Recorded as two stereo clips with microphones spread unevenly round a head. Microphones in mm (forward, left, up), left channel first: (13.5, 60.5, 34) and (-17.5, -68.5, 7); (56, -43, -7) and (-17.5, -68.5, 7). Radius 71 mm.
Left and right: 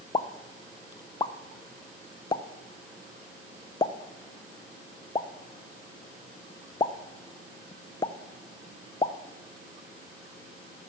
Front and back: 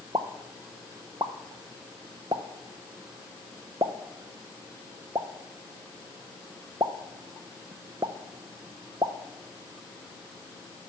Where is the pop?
145° left, 0.5 m.